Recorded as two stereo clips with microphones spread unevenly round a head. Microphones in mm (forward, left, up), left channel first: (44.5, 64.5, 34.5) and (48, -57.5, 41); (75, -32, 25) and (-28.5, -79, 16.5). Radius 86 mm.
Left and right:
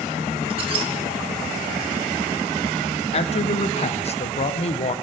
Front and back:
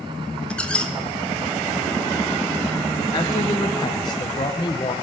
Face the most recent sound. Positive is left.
turn(degrees=80)